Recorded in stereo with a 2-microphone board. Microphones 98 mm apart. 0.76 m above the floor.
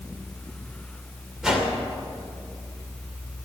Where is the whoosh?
5° right (ahead or behind), 2.5 m.